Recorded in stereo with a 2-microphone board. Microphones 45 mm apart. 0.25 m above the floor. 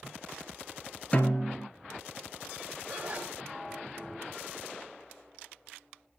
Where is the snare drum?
30° left (ahead or behind), 1.1 m.